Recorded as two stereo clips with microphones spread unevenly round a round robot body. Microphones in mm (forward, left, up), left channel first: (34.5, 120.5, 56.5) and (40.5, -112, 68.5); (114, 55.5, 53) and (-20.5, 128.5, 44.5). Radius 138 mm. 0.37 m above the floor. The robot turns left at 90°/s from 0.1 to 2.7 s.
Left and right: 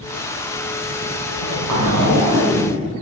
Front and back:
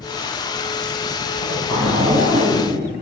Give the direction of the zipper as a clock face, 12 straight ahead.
2 o'clock.